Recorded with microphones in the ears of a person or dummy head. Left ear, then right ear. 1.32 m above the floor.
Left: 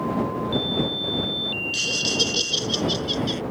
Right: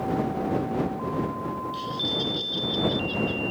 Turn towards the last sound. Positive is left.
turn(degrees=60)  # may be behind; listen again after turning